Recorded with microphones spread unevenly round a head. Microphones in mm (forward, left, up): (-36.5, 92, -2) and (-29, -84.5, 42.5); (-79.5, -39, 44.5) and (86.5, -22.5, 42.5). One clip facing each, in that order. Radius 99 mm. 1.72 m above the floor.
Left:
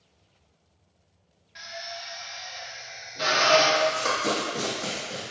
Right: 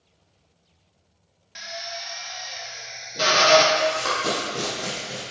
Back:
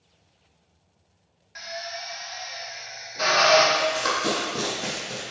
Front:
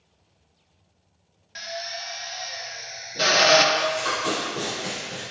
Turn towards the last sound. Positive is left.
turn(degrees=-150)